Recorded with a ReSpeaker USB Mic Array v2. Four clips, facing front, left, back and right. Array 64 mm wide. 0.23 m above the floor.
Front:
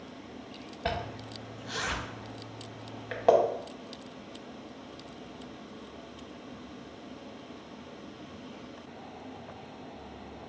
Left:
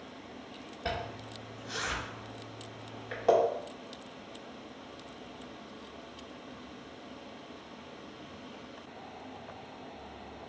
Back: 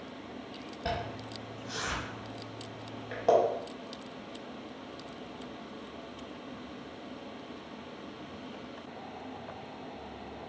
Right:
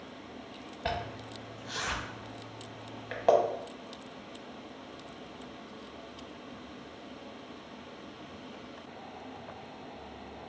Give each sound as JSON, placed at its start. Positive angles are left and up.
{"t": 0.8, "sound": "a zipper", "azimuth_deg": -30, "distance_m": 0.9}